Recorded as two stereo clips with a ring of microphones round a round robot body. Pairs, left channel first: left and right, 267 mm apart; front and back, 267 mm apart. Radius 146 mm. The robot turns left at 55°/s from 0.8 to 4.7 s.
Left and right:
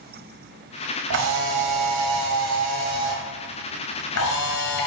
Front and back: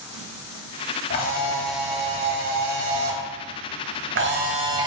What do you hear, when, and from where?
1.1 s a camera shutter: 55° right, 1.0 m; by 4.9 s 105° left, 1.0 m